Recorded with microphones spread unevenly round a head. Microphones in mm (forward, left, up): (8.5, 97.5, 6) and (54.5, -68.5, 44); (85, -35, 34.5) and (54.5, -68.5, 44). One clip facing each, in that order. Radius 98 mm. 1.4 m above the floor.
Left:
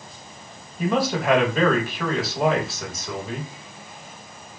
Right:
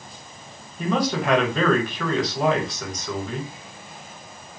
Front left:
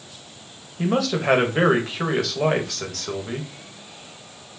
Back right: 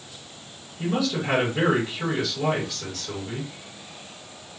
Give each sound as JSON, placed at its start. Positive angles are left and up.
{"t": 0.8, "sound": "a man speaking", "azimuth_deg": 15, "distance_m": 1.3}